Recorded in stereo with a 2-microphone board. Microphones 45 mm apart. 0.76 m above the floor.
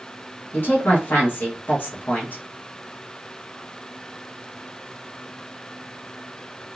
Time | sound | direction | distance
0.5 | a woman speaking | 45° left (ahead or behind) | 1.4 m